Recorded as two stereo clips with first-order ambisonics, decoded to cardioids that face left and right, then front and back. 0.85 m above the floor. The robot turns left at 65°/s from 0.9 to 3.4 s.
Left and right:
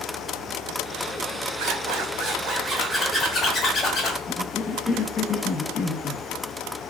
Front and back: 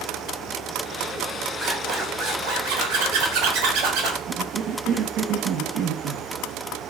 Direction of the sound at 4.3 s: 150° left.